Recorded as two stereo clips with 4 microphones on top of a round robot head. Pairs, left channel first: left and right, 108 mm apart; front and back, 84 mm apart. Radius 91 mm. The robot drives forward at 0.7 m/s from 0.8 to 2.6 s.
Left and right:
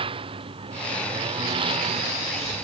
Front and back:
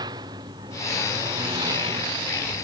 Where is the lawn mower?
130° right.